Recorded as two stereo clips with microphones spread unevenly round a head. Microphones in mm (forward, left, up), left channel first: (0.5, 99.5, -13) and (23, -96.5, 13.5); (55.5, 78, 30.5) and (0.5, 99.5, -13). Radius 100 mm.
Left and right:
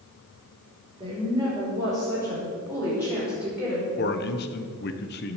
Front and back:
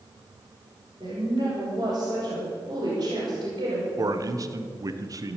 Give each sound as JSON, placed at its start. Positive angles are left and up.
{"t": 1.0, "sound": "a woman speaking", "azimuth_deg": -150, "distance_m": 6.0}
{"t": 4.0, "sound": "a man speaking", "azimuth_deg": 140, "distance_m": 1.3}